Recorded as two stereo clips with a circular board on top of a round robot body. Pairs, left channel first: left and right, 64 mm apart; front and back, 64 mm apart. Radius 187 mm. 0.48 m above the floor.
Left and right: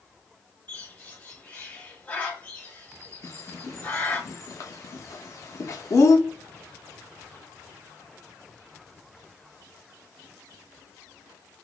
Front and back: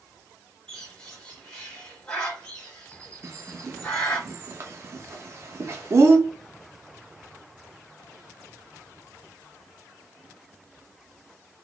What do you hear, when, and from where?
0.7 s a bird: 55° left, 1.3 m
3.2 s a bird: 130° left, 0.6 m